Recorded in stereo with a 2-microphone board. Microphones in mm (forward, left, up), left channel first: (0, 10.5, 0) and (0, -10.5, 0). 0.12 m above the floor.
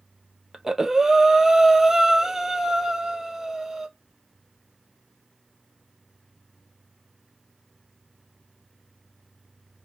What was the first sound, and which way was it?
Breathing, 20° right (ahead or behind).